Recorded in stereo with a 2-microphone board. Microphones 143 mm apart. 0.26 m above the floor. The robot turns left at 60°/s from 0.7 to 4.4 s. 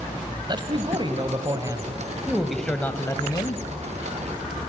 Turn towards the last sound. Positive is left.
turn(degrees=65)